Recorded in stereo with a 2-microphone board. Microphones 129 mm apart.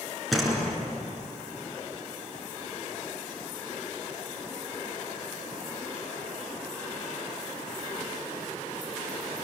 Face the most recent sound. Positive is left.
turn(degrees=0)  # may be behind; listen again after turning